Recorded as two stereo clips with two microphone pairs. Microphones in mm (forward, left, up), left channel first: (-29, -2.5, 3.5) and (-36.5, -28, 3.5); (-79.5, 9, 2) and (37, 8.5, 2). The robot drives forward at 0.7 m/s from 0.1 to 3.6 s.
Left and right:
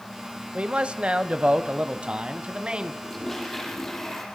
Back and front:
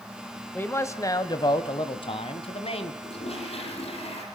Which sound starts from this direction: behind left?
A toilet flushing, at 3.0 s.